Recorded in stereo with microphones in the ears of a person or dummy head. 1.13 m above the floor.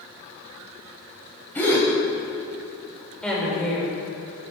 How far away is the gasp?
About 2 m.